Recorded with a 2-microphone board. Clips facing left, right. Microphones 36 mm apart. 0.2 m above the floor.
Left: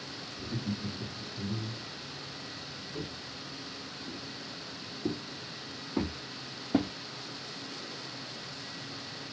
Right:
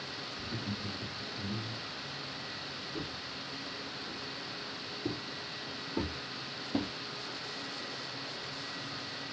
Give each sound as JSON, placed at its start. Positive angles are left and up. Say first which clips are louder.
{"t": 0.4, "sound": "laughter", "louder": "left 5 dB", "side_deg": 60, "distance_m": 4.0}
{"t": 2.9, "sound": "footsteps", "louder": "left 2 dB", "side_deg": 45, "distance_m": 6.0}